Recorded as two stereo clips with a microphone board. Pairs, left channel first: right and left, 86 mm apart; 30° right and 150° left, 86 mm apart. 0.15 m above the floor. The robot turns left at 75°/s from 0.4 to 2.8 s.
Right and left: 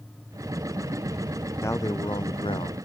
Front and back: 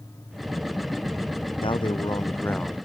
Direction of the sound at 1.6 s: 25° right.